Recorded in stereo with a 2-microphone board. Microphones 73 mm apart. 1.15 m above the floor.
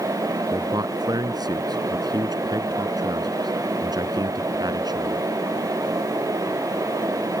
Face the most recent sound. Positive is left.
turn(degrees=-75)  # may be behind; listen again after turning